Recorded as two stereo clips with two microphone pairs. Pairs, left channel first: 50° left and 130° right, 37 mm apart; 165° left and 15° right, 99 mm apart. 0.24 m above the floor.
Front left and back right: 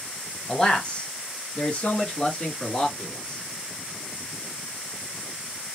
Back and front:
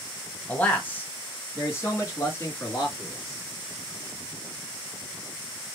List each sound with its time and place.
0.5 s a man speaking: 100° left, 1.3 m; by 3.4 s 110° left, 3 m